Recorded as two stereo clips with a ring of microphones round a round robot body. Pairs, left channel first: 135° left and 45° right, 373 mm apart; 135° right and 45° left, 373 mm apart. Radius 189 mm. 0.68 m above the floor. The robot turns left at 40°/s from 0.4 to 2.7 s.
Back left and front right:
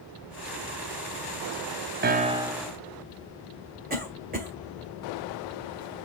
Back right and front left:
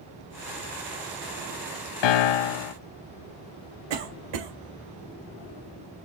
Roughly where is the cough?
Ahead left.